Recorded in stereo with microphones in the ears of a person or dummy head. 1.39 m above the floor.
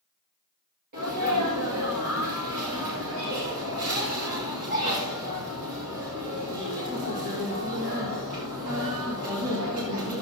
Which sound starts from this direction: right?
A sneeze, at 0.9 s.